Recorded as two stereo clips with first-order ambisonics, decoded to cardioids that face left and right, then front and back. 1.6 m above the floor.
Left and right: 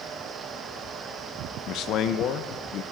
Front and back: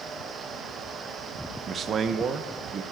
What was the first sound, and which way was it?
A man speaking, 125° left.